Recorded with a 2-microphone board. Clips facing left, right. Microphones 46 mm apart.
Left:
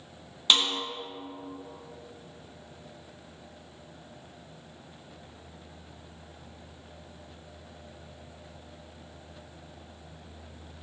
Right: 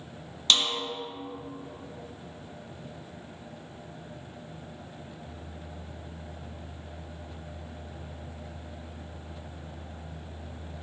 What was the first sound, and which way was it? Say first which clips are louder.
A snare drum: left 1 dB; 15° left (ahead or behind).